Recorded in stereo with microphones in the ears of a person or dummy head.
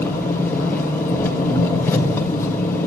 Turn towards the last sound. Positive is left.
turn(degrees=15)  # may be behind; listen again after turning